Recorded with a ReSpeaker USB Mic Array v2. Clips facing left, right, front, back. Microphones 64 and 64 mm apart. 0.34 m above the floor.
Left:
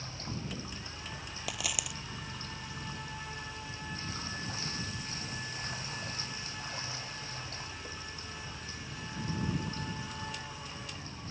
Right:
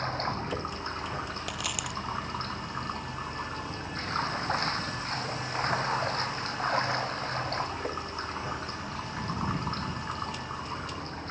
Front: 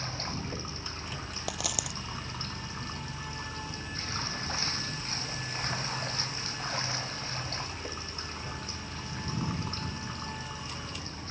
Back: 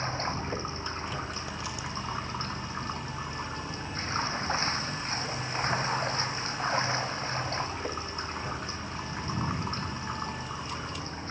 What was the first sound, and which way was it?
Running water, 120° right.